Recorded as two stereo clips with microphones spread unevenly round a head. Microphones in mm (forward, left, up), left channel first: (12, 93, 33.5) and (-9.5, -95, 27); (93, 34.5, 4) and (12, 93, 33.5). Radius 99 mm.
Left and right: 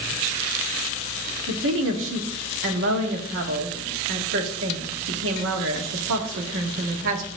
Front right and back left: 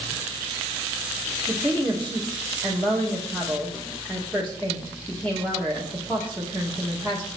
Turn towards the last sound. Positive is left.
turn(degrees=-120)